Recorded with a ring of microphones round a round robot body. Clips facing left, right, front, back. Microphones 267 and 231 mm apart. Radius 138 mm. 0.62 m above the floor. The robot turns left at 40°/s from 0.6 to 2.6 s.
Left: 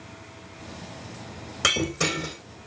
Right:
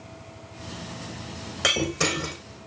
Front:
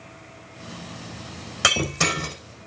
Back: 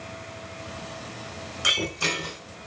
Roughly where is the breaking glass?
Ahead.